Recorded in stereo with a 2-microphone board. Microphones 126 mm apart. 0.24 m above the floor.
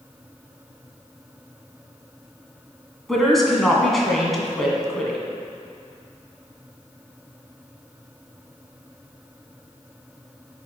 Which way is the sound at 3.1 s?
Centre (ahead or behind).